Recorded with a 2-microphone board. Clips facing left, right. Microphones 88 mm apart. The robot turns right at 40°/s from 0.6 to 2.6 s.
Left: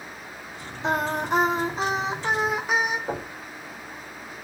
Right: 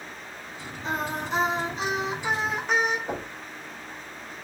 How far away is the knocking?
About 1.5 m.